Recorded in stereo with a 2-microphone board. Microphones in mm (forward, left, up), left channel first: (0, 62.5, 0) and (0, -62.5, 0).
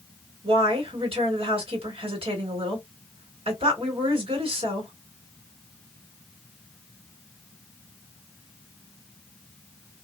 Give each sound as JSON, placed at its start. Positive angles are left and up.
{"t": 0.4, "sound": "a woman speaking", "side_deg": -50, "distance_m": 2.0}